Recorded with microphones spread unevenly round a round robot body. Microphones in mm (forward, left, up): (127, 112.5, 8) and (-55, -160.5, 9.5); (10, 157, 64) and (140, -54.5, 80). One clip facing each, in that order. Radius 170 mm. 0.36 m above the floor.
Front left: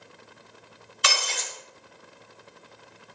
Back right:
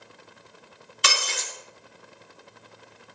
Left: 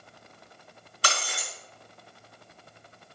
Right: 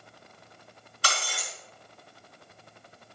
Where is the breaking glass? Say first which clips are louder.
Even, left 1 dB; straight behind, 3.5 m.